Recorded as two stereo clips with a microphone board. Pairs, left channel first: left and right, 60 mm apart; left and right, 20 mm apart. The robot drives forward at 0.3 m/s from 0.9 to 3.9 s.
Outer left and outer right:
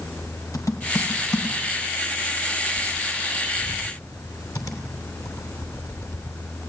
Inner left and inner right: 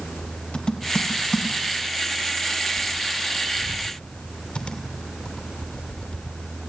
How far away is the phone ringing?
No phone ringing in this recording.